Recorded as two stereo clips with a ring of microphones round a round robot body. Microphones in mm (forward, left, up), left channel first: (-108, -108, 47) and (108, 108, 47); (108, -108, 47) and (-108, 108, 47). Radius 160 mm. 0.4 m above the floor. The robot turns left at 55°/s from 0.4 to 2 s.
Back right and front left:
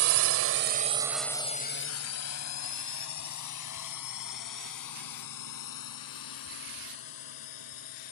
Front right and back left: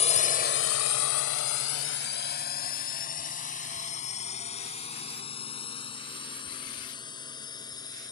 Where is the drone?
20° left; by 8.1 s 125° right.